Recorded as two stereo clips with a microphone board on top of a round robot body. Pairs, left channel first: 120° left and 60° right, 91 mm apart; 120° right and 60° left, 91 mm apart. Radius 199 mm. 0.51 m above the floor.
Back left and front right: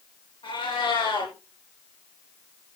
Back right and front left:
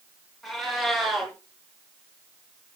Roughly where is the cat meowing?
Behind left.